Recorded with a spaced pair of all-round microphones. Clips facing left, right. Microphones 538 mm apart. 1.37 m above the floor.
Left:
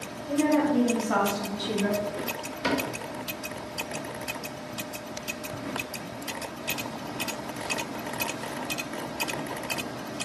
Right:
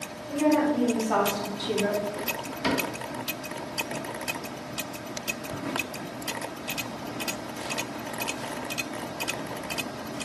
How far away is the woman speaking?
About 1.2 m.